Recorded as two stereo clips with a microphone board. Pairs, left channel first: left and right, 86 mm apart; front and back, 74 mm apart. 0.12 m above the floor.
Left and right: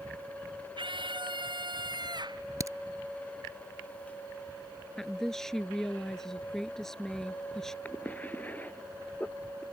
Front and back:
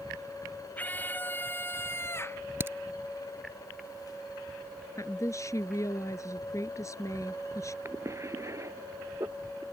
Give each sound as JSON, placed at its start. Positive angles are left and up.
{"t": 0.8, "sound": "a scream", "azimuth_deg": -70}
{"t": 2.6, "sound": "a crack", "azimuth_deg": -130}
{"t": 5.0, "sound": "a woman speaking", "azimuth_deg": 5}
{"t": 7.8, "sound": "a cough", "azimuth_deg": 150}